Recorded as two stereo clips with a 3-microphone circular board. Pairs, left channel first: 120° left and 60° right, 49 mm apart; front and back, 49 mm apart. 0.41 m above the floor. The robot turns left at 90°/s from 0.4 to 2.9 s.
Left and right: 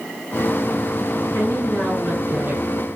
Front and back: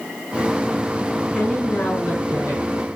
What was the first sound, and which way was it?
A woman speaking, 85° left.